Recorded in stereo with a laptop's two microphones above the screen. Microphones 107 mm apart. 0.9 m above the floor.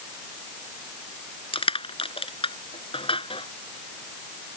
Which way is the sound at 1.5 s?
60° left (ahead or behind).